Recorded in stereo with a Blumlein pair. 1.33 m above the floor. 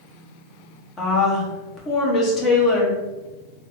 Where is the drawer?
No drawer in this recording.